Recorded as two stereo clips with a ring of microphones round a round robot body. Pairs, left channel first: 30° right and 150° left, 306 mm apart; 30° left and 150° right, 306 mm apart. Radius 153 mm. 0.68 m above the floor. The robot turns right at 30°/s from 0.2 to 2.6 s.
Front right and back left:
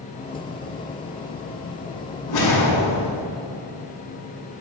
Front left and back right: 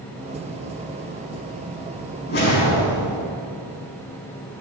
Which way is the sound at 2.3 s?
25° right.